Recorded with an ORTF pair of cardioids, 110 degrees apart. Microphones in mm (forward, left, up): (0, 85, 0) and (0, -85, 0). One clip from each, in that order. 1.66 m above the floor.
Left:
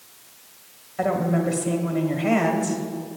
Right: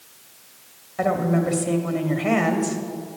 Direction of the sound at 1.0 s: 10° right.